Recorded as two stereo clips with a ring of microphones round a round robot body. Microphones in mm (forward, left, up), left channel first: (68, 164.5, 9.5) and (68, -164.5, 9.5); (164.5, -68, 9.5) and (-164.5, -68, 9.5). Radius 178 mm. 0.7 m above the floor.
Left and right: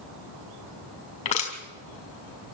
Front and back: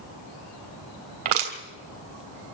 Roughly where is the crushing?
Behind.